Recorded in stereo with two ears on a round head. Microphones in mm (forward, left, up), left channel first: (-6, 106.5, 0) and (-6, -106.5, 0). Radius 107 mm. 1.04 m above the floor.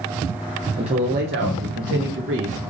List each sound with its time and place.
0.8 s a man speaking: 25° right (ahead or behind), 0.7 m; by 2.6 s 50° right (ahead or behind), 1.4 m